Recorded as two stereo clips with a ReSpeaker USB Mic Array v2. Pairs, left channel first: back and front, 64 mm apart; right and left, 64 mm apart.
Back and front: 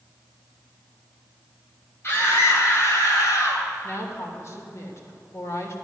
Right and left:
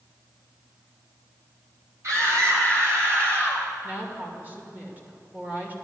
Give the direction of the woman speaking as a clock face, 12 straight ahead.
7 o'clock.